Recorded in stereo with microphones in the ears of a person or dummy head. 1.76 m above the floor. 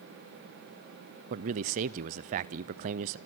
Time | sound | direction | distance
1.3 | a man speaking | 35° right (ahead or behind) | 0.5 m